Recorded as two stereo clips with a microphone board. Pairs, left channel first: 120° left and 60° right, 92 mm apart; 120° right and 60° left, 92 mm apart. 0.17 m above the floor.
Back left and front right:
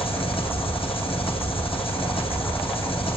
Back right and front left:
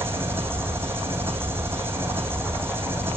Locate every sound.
0.0 s an engine running: 125° left, 2.5 m